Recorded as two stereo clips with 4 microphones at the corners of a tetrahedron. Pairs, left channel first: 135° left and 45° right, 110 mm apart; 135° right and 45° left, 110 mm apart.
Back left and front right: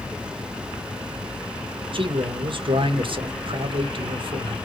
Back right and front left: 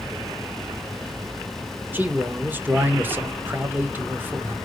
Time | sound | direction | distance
1.9 | a man speaking | 25° right | 0.6 m